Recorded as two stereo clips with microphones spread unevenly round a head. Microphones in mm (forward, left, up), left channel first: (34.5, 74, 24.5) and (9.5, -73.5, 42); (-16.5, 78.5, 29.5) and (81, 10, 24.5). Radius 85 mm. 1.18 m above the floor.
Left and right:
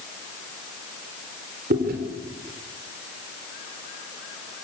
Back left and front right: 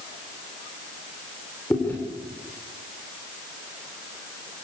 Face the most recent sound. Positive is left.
turn(degrees=-135)